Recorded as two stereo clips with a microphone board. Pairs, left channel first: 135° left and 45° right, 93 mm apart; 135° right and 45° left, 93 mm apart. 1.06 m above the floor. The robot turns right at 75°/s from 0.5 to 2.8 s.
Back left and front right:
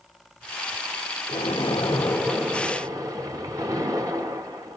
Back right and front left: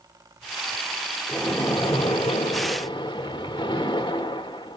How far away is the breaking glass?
No breaking glass in this recording.